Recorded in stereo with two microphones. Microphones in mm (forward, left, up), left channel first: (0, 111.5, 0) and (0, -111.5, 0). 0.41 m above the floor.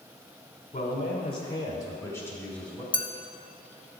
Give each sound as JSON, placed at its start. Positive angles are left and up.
{"t": 0.7, "sound": "a man speaking", "side_deg": 35, "distance_m": 1.3}
{"t": 2.9, "sound": "a clink", "side_deg": 25, "distance_m": 0.6}